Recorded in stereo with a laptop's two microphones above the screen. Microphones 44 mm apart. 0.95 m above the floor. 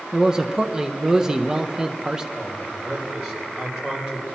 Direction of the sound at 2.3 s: 5° right (ahead or behind).